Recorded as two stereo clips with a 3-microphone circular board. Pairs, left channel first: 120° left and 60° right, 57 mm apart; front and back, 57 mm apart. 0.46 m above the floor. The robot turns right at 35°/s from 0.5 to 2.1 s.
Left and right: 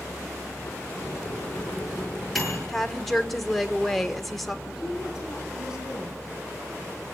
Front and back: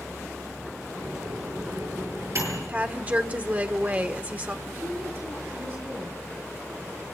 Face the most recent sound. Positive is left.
turn(degrees=-135)